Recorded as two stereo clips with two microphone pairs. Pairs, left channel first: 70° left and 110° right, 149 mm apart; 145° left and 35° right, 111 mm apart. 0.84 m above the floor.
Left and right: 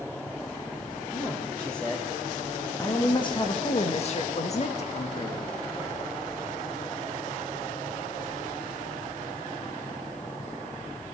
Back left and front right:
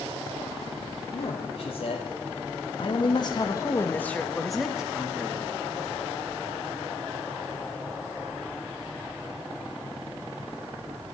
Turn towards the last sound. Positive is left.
turn(degrees=35)